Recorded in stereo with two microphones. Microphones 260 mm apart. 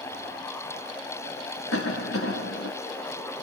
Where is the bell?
I don't hear a bell.